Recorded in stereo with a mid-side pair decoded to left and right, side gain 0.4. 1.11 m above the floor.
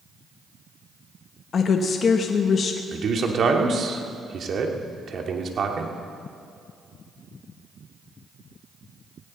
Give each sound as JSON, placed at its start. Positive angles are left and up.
{"t": 1.5, "sound": "a woman speaking", "azimuth_deg": 55, "distance_m": 1.2}
{"t": 2.9, "sound": "a man speaking", "azimuth_deg": -55, "distance_m": 2.5}